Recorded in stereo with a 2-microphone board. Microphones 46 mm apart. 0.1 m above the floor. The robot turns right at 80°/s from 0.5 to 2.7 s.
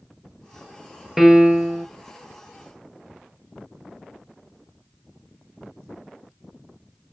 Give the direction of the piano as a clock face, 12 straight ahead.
6 o'clock.